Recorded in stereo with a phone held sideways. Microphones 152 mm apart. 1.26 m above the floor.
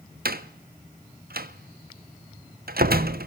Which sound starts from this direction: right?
A door slam, at 0.2 s.